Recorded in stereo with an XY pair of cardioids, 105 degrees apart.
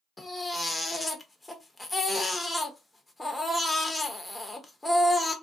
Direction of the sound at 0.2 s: 10° left.